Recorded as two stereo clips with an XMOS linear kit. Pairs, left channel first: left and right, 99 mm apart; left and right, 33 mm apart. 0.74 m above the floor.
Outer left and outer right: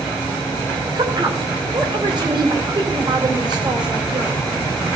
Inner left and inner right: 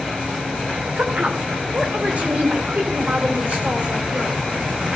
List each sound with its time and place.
0.9 s a woman speaking: 50° right (ahead or behind), 3 m